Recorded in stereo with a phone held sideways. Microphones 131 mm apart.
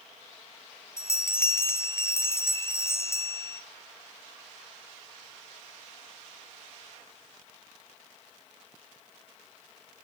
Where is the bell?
20° left (ahead or behind), 0.5 m.